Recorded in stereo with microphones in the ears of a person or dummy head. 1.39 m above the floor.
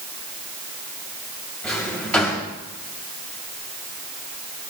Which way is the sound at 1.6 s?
5° left (ahead or behind).